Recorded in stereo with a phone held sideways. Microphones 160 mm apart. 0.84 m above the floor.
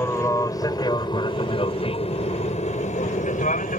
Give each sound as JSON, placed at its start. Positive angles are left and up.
{"t": 0.0, "sound": "an aircraft", "side_deg": 20}